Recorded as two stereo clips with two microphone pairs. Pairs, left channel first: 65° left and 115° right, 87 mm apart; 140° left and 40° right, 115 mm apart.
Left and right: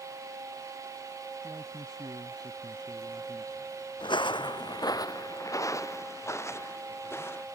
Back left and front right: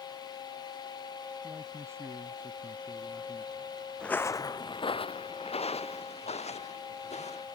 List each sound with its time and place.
1.4 s a man speaking: 85° right; by 3.5 s 115° right
4.0 s footsteps: 60° left; by 7.5 s 125° left